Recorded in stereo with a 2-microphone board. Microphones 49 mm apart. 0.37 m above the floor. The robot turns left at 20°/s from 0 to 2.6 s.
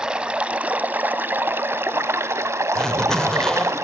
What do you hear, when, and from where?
0.0 s running water: 15° right, 0.8 m; by 3.8 s 70° right, 0.8 m
2.8 s a zipper: 15° left (ahead or behind), 1.0 m